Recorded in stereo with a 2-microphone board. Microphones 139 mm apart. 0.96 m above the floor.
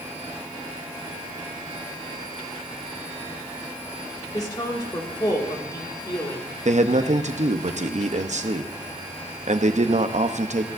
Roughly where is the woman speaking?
Left.